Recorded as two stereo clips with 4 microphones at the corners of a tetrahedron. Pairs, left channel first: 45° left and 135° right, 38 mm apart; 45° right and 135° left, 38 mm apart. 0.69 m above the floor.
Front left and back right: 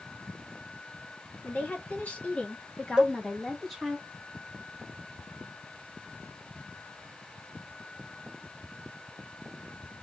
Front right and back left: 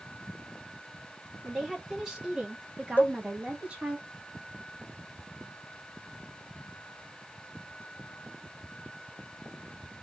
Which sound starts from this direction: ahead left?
A woman speaking, at 1.4 s.